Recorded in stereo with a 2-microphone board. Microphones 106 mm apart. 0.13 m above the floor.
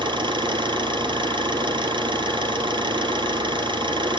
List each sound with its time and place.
0.0 s an engine running: 50° right (ahead or behind), 2.5 m